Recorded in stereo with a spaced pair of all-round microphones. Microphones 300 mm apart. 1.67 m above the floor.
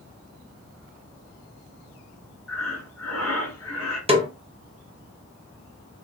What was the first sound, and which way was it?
Breathing, 55° left (ahead or behind).